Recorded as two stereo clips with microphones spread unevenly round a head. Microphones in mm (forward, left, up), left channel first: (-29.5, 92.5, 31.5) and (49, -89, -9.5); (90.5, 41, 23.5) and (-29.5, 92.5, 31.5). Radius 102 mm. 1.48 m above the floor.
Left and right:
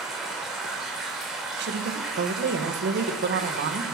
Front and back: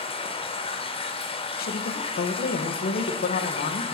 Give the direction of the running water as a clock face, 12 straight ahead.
11 o'clock.